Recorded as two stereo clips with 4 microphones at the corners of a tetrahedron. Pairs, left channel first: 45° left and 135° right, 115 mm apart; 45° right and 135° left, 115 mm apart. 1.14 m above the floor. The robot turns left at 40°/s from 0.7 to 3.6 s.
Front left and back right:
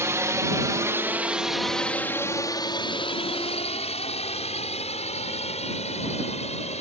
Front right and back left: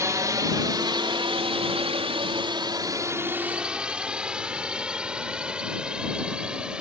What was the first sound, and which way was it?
A drone, 175° left.